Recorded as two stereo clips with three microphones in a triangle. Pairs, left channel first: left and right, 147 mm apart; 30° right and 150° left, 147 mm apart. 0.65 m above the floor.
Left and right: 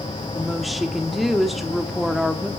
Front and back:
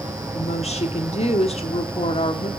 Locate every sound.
0.3 s a woman speaking: straight ahead, 1.1 m